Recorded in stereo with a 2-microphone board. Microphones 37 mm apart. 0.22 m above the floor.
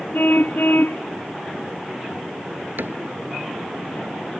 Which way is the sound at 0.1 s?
60° left (ahead or behind).